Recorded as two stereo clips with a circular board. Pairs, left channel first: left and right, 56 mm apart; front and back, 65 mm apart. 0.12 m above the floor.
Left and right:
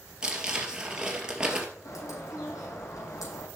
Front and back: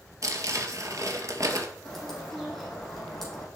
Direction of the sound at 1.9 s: 85° left.